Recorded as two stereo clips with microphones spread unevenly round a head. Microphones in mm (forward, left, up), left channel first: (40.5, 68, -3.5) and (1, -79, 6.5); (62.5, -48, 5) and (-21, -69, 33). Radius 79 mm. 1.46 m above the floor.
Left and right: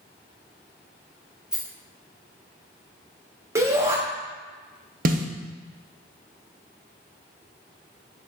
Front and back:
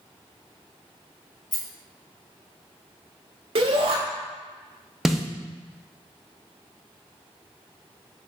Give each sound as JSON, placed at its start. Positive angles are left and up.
{"t": 1.5, "sound": "a rattle", "azimuth_deg": -20, "distance_m": 1.5}
{"t": 3.5, "sound": "a shout", "azimuth_deg": 180, "distance_m": 0.9}
{"t": 5.0, "sound": "a snare drum", "azimuth_deg": -90, "distance_m": 0.5}